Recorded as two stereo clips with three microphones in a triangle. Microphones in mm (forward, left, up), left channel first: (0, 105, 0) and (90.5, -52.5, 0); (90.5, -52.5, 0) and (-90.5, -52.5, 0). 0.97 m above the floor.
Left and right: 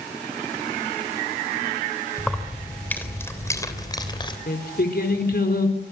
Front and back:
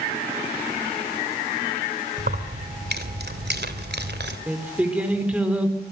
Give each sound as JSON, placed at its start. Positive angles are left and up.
{"t": 2.2, "sound": "keys jangling", "azimuth_deg": -150, "distance_m": 3.0}
{"t": 4.5, "sound": "singing", "azimuth_deg": 100, "distance_m": 4.0}